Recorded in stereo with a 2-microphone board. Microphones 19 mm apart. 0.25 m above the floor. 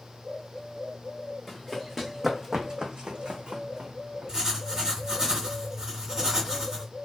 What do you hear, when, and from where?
1.5 s running footsteps: 15° left (ahead or behind), 1.0 m; by 4.3 s 80° right, 1.2 m
4.3 s writing: 25° right (ahead or behind), 1.6 m